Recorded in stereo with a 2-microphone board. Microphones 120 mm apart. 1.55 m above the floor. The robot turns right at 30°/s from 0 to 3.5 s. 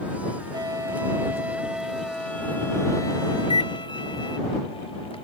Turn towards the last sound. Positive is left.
turn(degrees=55)  # may be behind; listen again after turning